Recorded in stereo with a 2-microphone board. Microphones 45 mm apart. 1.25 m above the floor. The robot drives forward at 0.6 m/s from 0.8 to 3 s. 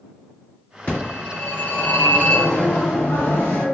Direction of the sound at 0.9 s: 35° left (ahead or behind).